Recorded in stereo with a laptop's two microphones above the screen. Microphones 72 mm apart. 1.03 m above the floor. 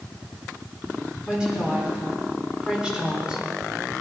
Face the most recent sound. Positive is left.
turn(degrees=-15)  # may be behind; listen again after turning